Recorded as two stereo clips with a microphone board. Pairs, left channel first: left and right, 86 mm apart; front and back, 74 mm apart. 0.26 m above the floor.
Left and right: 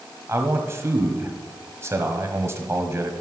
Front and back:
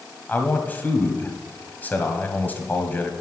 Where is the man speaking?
50° right, 1.4 m.